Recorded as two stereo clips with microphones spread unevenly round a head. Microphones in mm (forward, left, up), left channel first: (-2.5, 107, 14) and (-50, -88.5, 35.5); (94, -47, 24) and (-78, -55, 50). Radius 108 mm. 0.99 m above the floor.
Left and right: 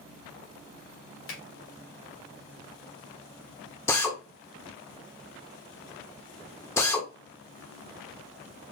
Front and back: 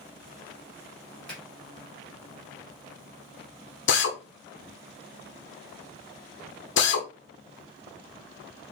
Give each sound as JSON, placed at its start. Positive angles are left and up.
{"t": 1.3, "sound": "a finger snap", "azimuth_deg": 85, "distance_m": 2.5}
{"t": 3.9, "sound": "a drill", "azimuth_deg": 0, "distance_m": 0.7}